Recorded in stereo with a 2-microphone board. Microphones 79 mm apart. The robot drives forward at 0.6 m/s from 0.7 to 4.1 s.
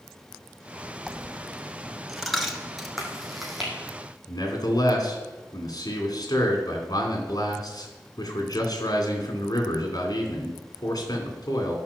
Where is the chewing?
Centre (ahead or behind), 2.5 m.